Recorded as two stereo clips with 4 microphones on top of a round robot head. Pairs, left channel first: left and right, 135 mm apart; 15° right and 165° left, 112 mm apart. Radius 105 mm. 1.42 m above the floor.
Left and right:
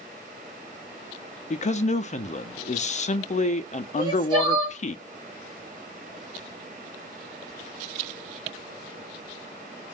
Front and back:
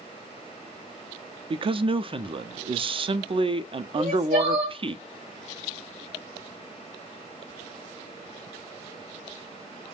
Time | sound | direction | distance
1.5 | a man speaking | 125° left | 0.5 m
4.0 | crying | 145° right | 1.6 m